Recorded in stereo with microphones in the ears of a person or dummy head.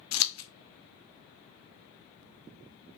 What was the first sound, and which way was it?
Scissors, 75° left (ahead or behind).